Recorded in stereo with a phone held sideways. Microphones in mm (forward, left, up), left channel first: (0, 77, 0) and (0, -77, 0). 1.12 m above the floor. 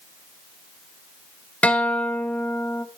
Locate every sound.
1.6 s a guitar: 10° left (ahead or behind), 1.0 m